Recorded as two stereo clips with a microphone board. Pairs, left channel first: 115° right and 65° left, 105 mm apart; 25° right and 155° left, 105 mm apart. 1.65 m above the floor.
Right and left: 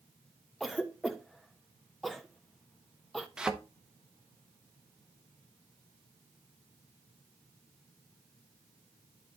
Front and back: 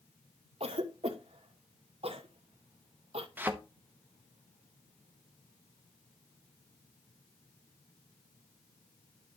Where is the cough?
160° left, 1.0 m.